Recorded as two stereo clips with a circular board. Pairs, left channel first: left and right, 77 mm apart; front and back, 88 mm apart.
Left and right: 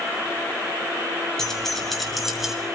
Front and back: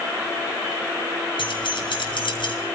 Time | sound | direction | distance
1.4 | keys jangling | 5° left | 5 m